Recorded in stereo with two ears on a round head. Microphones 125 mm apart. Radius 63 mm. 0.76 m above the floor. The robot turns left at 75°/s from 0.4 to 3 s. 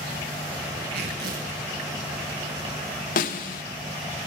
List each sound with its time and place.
0.9 s tearing paper: 70° right, 6.5 m; by 1.6 s 120° right, 6.5 m
3.2 s a snare drum: 65° left (ahead or behind), 1.5 m